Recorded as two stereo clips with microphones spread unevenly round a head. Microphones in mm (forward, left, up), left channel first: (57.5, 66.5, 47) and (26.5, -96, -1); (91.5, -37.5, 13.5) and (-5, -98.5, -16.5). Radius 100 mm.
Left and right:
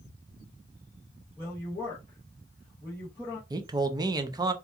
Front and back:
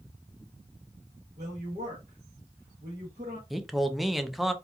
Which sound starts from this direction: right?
A man speaking, at 3.5 s.